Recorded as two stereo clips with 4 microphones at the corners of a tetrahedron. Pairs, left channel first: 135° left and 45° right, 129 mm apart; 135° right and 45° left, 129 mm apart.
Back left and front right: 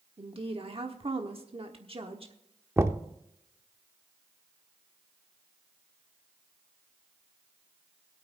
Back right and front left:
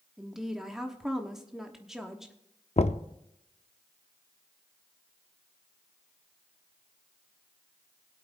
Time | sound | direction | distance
0.2 | a woman speaking | 40° right | 1.1 m
2.8 | knocking | 110° right | 0.6 m